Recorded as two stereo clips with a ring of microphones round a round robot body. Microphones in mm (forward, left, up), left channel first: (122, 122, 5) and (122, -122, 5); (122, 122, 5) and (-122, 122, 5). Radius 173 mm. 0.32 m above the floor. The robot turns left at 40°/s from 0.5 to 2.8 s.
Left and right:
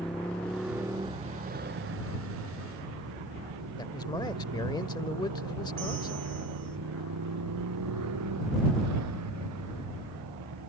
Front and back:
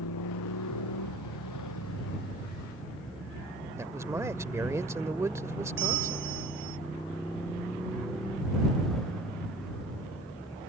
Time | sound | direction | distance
0.0 | a motorcycle | 5° left | ?
3.8 | a man speaking | 125° left | ?
5.8 | a bell | 160° right | ?